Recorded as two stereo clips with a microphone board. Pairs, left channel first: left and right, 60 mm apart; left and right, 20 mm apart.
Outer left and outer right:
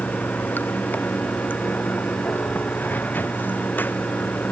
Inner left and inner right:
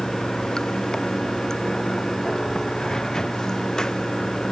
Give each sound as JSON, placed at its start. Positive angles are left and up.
{"t": 0.0, "sound": "running water", "side_deg": 30}